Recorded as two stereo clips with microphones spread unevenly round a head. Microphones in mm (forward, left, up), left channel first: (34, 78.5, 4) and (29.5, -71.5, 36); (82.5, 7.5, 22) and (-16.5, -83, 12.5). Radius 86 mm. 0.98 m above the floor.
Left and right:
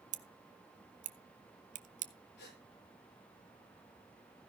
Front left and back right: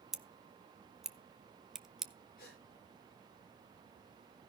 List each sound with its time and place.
0.1 s scissors: 50° right, 1.0 m
2.4 s a gasp: 85° left, 6 m